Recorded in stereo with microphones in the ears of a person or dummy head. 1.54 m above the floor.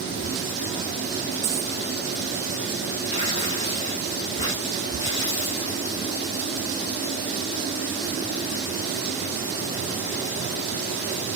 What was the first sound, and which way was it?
A dropped coin, 35° right (ahead or behind).